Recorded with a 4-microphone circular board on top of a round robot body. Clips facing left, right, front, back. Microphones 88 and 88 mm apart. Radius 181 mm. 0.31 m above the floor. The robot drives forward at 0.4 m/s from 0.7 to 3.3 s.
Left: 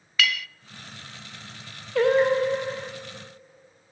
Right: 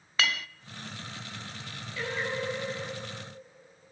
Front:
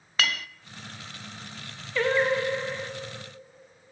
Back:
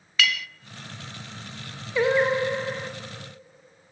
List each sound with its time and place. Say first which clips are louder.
0.2 s a clink: left 3 dB, back 2 dB; 40° right, 0.5 m
1.9 s singing: left 14 dB, back 3 dB; 105° left, 1.9 m; by 2.9 s 115° left, 2.0 m